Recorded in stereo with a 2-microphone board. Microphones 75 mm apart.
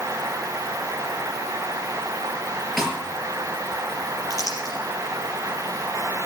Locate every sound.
2.8 s a snare drum: centre (ahead or behind), 6 m
4.3 s crumpling: 45° left (ahead or behind), 4 m